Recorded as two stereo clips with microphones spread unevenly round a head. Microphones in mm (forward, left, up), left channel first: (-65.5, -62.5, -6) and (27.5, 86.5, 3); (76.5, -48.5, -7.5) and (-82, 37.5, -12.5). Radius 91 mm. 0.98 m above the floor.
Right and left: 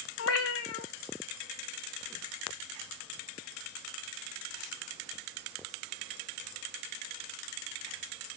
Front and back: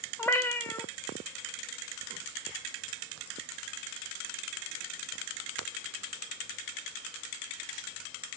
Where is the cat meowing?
105° right, 1.6 m.